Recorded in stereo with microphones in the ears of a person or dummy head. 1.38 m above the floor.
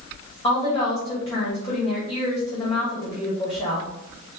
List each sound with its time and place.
0.4 s a woman speaking: 15° left (ahead or behind), 2 m